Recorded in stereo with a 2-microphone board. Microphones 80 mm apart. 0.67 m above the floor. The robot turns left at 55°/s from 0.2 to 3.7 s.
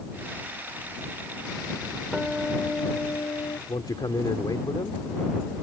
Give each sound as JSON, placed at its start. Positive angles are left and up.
{"t": 2.1, "sound": "a guitar", "azimuth_deg": -170}
{"t": 3.7, "sound": "a man speaking", "side_deg": 65}